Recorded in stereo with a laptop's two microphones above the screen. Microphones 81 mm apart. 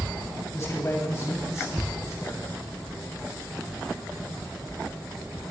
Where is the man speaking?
35° left (ahead or behind), 7 m; by 2.6 s 40° left (ahead or behind), 5 m.